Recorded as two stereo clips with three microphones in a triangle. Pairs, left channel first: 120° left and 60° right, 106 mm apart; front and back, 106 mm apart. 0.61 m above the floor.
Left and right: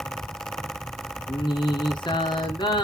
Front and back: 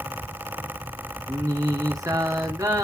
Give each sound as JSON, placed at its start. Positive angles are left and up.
{"t": 1.3, "sound": "singing", "azimuth_deg": 135, "distance_m": 1.7}